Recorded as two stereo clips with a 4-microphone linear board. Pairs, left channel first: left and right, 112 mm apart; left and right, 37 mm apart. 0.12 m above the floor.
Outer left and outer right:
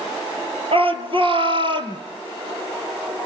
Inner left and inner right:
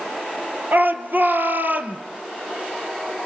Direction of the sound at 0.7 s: 55° right (ahead or behind).